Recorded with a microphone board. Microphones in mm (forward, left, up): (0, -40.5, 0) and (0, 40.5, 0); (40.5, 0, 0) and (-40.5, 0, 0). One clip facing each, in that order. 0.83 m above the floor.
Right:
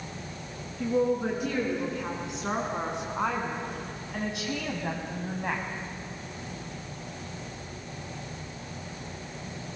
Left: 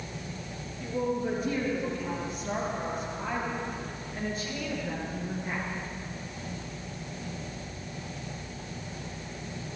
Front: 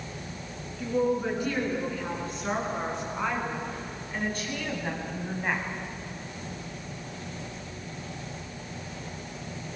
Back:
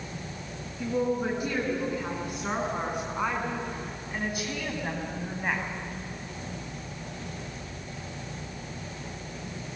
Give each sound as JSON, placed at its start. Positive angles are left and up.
{"t": 0.8, "sound": "a woman speaking", "azimuth_deg": -105, "distance_m": 8.5}